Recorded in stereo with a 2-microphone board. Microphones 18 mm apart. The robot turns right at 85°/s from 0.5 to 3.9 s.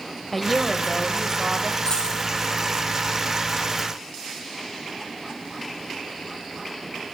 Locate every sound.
0.3 s a woman speaking: 170° left, 1.1 m; by 1.8 s 85° right, 1.1 m
1.9 s a dropped coin: 50° left (ahead or behind), 4 m; by 2.2 s 80° left, 4 m